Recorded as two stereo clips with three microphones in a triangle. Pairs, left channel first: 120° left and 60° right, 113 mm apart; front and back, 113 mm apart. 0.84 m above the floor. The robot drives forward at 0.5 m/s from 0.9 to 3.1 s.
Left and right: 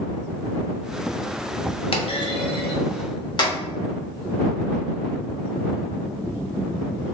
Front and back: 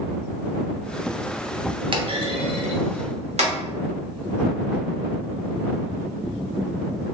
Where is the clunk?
145° left, 0.6 m; by 3.6 s 165° left, 1.1 m.